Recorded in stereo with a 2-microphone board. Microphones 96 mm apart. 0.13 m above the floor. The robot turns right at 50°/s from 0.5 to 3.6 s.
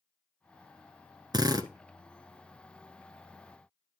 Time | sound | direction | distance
1.3 | a drill | 45° right (ahead or behind) | 0.9 m